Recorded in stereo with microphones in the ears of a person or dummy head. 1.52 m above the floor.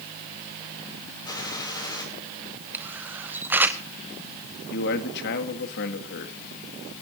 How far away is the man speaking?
About 2.0 m.